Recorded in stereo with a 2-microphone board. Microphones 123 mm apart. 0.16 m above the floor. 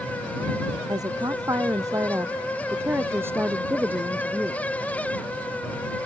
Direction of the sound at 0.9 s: 30° right (ahead or behind).